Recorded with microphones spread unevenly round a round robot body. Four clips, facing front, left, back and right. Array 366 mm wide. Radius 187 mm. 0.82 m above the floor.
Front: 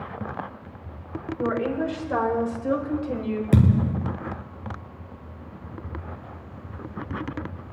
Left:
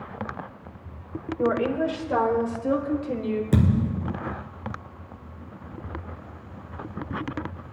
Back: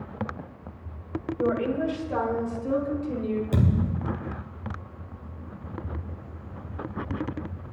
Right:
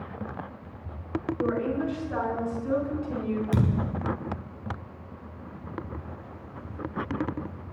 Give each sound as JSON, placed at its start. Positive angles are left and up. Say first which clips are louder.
{"t": 1.4, "sound": "a woman speaking", "louder": "left 5 dB, even", "azimuth_deg": 65, "distance_m": 3.0}
{"t": 3.5, "sound": "a thud", "louder": "left 4 dB, front 5 dB", "azimuth_deg": 25, "distance_m": 2.0}